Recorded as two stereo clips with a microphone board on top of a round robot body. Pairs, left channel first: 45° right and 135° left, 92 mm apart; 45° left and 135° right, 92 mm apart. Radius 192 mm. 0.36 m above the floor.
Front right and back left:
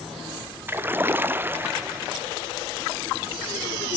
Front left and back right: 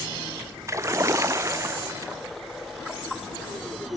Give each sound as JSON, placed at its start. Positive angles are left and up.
{"t": 0.7, "sound": "a splash", "azimuth_deg": -170, "distance_m": 1.3}